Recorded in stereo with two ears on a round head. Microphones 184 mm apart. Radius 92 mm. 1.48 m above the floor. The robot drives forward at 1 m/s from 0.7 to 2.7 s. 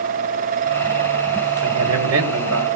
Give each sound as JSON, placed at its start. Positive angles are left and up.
{"t": 1.6, "sound": "a man speaking", "side_deg": -80, "distance_m": 4.0}